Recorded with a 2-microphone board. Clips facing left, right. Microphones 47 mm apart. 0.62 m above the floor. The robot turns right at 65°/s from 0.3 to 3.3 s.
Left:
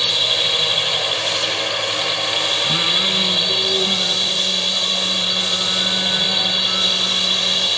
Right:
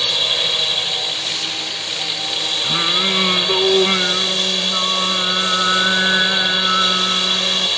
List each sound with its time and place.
0.0 s a drone: straight ahead; by 7.8 s 165° right
2.6 s singing: 165° right; by 7.7 s 125° right